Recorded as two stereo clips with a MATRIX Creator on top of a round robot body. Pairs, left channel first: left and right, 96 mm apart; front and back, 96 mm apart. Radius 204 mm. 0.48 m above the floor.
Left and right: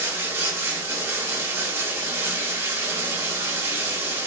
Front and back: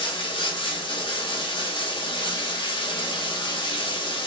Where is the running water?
25° right, 0.9 m.